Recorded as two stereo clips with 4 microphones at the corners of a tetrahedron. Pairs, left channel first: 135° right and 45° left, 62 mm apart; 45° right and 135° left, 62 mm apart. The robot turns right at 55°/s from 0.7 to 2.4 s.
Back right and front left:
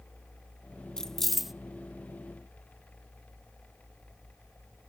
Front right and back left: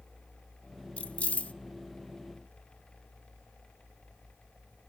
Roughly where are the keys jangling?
Right.